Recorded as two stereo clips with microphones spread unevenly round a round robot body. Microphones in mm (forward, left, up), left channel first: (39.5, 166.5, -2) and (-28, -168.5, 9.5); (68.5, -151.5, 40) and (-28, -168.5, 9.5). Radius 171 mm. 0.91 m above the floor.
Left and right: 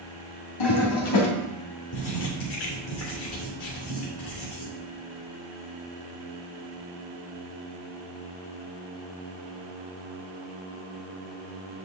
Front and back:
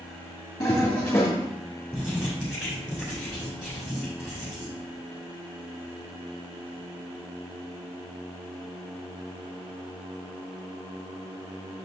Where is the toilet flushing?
80° left, 2 m.